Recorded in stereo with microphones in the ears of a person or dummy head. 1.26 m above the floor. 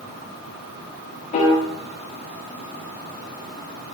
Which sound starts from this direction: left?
A piano, at 1.3 s.